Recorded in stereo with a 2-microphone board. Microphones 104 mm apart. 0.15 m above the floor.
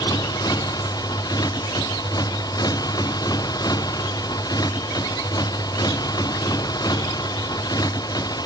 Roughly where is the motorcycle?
Left.